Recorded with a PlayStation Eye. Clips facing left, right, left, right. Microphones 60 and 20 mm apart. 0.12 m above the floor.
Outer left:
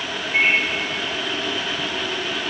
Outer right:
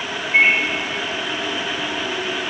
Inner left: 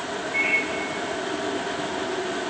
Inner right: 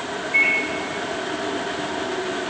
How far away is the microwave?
About 4.5 m.